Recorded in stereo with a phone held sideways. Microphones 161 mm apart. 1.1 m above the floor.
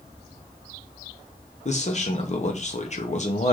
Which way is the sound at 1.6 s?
45° left (ahead or behind).